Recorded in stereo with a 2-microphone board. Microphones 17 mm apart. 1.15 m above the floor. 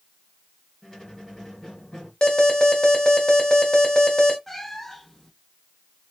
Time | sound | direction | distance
0.8 | a squeak | 30° left (ahead or behind) | 2.5 m
2.2 | an alarm | 50° left (ahead or behind) | 1.6 m
4.5 | a cat meowing | 15° left (ahead or behind) | 0.9 m